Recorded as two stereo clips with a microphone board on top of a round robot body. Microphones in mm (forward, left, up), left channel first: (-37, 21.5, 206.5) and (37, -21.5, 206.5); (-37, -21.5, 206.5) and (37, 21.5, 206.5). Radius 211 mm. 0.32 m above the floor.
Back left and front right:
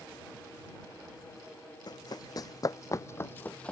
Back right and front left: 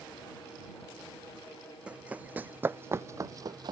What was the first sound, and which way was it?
Running footsteps, 110° left.